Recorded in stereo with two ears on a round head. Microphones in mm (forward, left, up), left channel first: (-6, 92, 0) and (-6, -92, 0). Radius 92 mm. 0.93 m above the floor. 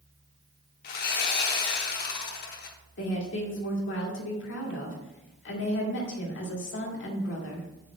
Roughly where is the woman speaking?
Left.